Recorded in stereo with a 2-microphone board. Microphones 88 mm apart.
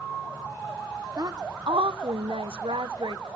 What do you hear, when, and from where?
1.2 s a woman speaking: 45° right (ahead or behind), 0.8 m; by 3.4 s 70° right (ahead or behind), 1.2 m